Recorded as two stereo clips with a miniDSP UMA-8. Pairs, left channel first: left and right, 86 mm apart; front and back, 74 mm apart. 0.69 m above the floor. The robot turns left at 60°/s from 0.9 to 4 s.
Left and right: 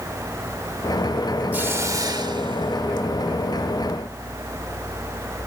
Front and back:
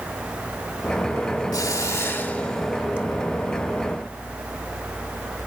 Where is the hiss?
20° right, 2.0 m; by 3.1 s 115° right, 2.0 m.